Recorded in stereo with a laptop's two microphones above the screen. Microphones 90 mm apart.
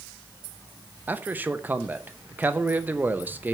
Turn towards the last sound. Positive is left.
turn(degrees=-20)  # may be behind; listen again after turning